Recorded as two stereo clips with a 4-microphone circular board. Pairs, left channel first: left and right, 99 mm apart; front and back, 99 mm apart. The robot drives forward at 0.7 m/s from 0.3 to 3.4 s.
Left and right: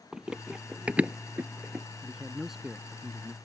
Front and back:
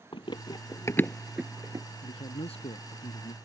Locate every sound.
0.1 s running footsteps: 10° right; by 1.9 s 160° right
2.0 s a man speaking: 5° right